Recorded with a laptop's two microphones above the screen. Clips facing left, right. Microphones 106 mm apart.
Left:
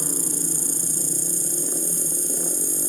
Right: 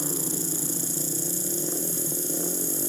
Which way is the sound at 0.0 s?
40° left (ahead or behind).